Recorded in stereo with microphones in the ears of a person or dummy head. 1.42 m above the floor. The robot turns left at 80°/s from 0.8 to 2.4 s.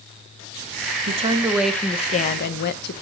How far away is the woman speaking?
About 1.0 m.